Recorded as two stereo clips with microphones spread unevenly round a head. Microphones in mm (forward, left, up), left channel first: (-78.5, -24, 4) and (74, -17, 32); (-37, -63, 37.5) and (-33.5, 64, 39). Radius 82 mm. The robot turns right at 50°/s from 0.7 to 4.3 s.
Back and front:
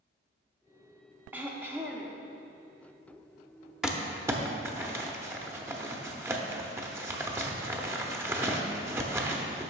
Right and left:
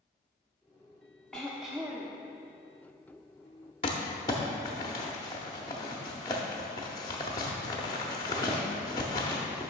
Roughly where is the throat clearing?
Ahead.